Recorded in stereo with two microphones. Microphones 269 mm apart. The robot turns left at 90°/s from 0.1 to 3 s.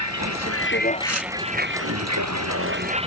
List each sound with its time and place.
0.0 s a vehicle: 80° left; by 3.1 s 20° right (ahead or behind)
1.0 s tearing paper: 70° right (ahead or behind); by 1.3 s 80° right